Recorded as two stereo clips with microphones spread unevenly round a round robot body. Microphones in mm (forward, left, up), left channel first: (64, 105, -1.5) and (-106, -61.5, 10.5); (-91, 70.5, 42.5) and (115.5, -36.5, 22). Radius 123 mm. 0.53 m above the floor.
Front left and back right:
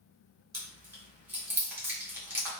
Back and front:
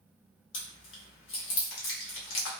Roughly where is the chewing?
Behind left.